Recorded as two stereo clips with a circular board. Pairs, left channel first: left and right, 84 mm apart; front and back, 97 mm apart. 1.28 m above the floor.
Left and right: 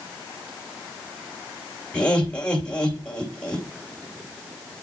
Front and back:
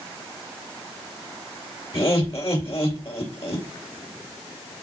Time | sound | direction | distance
1.9 | laughter | 15° left | 2.5 m